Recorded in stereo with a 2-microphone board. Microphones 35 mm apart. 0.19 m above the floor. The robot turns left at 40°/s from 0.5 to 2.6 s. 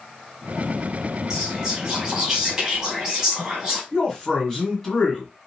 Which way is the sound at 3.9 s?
20° left (ahead or behind).